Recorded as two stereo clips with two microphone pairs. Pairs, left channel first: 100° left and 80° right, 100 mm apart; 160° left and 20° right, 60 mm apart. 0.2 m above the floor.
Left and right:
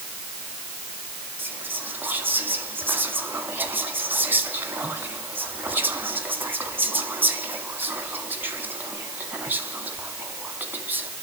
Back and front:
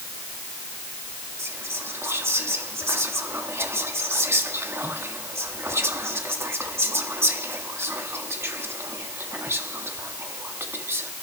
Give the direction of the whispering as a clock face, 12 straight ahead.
1 o'clock.